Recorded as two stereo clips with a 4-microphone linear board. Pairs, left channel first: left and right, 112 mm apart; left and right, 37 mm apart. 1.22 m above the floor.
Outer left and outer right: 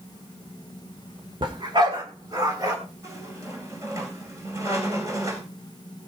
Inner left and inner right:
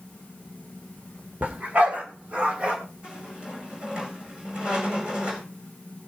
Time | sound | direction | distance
1.4 | a dog barking | 45° right (ahead or behind) | 2 m
3.0 | a squeak | 30° right (ahead or behind) | 4 m